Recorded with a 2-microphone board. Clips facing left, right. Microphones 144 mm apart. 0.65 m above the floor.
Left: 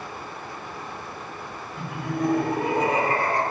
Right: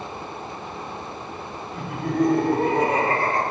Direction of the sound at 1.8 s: 70° right (ahead or behind).